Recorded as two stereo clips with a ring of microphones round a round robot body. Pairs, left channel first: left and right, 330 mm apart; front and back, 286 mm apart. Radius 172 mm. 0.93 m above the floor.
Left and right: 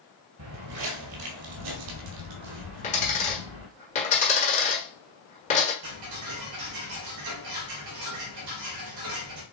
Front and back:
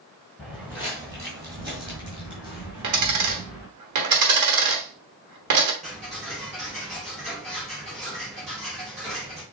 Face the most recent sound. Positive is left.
turn(degrees=-110)